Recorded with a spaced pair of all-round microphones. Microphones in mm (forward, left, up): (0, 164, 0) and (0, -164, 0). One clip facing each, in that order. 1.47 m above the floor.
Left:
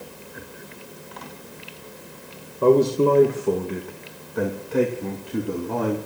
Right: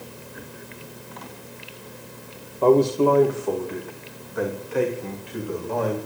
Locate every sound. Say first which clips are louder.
2.6 s a man speaking: even; 20° left (ahead or behind), 2.0 m; by 6.0 s 60° left (ahead or behind), 3.5 m